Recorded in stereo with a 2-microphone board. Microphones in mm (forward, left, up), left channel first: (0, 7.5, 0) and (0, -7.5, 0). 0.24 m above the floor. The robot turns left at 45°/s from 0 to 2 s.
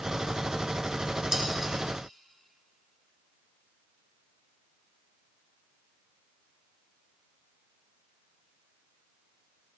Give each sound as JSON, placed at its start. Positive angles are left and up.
{"t": 1.3, "sound": "dishes clattering", "side_deg": -30, "distance_m": 1.9}